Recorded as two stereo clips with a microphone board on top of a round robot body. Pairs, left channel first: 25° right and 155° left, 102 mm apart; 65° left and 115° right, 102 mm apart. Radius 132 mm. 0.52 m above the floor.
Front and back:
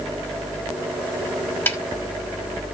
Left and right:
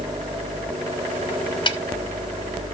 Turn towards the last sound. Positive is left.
turn(degrees=40)